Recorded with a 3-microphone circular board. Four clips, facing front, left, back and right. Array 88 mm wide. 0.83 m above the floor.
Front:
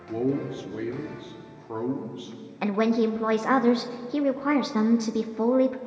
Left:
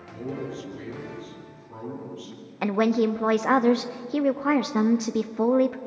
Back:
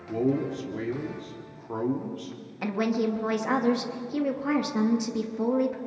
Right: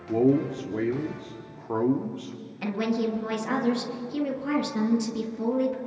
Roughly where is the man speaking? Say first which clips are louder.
Right 11 dB, back 1 dB; right.